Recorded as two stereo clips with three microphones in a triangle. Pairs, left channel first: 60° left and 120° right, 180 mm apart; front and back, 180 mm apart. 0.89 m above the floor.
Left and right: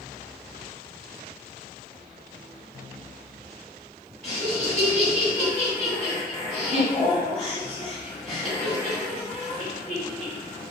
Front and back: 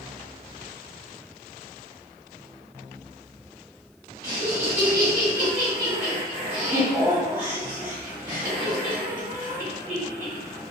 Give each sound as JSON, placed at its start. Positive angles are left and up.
{"t": 4.2, "sound": "laughter", "azimuth_deg": 135, "distance_m": 1.2}